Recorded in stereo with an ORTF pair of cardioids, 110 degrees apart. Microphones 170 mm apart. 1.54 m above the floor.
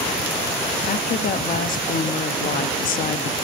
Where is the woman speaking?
55° left, 0.8 m.